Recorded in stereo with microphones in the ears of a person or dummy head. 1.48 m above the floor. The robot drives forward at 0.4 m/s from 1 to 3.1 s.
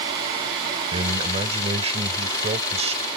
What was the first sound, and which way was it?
A man speaking, 35° right (ahead or behind).